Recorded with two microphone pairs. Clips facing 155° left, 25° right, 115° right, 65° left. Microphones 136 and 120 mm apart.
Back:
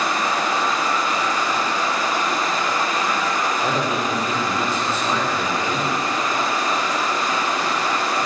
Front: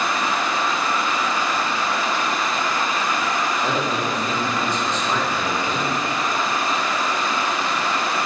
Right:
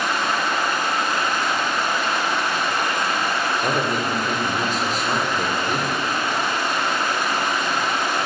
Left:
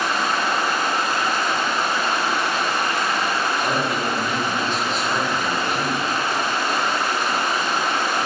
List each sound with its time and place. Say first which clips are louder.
0.0 s running water: back 1 dB, left 1 dB; 115° left, 0.9 m
3.6 s a man speaking: back 1 dB, even; 125° right, 1.0 m